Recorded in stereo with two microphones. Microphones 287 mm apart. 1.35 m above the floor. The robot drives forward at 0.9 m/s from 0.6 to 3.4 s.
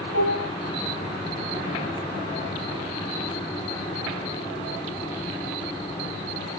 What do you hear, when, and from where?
0.1 s dishes clattering: 65° left (ahead or behind), 4.5 m